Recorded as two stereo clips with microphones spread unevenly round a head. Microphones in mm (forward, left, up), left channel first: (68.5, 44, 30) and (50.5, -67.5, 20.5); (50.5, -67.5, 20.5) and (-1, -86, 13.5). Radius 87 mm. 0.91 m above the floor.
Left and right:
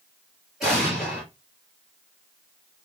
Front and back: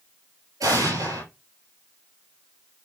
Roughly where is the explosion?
Behind.